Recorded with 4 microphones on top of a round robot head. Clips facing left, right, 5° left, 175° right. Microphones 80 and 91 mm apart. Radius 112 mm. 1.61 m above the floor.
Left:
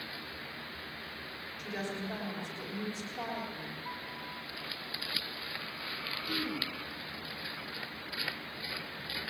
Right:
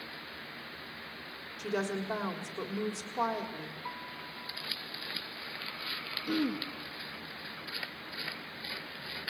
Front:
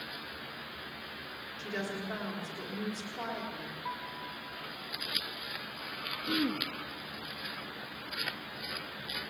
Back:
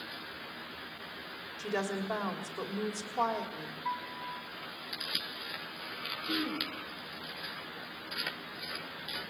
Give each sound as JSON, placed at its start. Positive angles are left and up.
{"t": 1.6, "sound": "a woman speaking", "azimuth_deg": -115, "distance_m": 3.5}
{"t": 3.9, "sound": "a piano", "azimuth_deg": -75, "distance_m": 3.5}
{"t": 6.3, "sound": "throat clearing", "azimuth_deg": -65, "distance_m": 2.5}